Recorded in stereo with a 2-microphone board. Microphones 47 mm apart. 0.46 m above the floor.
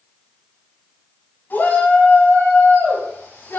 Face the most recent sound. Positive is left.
turn(degrees=60)  # may be behind; listen again after turning